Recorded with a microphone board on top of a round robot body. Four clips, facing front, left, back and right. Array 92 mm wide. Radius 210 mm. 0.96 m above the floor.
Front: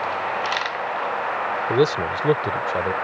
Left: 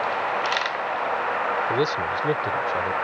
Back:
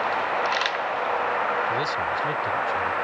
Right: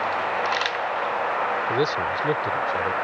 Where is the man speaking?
Straight ahead; by 2.9 s 5° left.